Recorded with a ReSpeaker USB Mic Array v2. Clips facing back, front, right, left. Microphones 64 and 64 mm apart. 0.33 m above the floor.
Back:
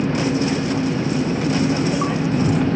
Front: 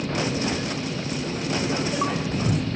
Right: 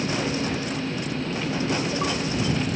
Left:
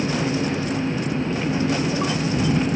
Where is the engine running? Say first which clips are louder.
Back 6 dB, left 3 dB; 165° left.